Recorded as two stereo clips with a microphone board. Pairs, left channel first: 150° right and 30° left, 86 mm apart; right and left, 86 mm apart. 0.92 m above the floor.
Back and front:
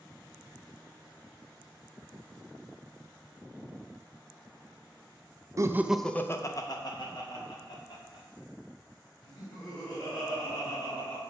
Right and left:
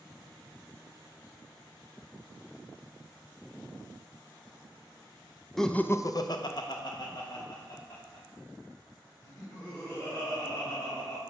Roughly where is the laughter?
Ahead.